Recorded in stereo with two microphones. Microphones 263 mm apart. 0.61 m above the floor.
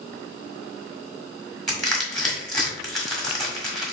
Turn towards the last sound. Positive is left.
turn(degrees=0)  # may be behind; listen again after turning